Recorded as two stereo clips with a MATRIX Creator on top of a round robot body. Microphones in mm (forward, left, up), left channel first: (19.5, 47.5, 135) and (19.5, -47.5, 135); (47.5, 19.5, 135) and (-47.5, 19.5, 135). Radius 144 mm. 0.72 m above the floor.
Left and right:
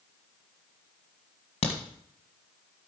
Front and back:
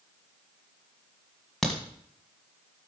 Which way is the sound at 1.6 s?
85° left.